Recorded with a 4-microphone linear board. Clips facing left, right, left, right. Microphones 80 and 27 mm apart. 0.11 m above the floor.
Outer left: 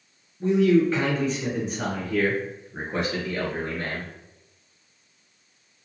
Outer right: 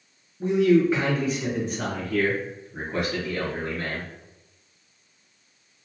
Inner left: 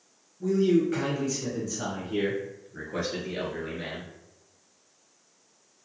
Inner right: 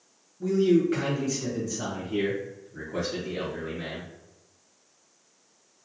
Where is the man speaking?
20° right (ahead or behind), 1.4 m; by 4.1 s 40° left (ahead or behind), 1.9 m.